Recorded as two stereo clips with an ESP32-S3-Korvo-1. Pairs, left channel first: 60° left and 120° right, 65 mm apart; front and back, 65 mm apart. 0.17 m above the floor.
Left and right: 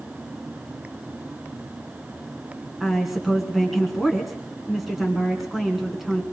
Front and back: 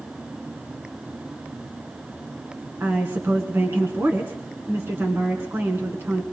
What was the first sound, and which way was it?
A woman speaking, 155° left.